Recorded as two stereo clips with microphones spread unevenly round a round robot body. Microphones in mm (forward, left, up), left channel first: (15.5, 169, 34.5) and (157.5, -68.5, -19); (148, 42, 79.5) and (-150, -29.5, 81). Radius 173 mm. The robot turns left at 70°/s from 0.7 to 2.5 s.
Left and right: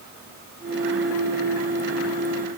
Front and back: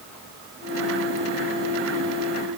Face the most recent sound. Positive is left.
No sound to turn to.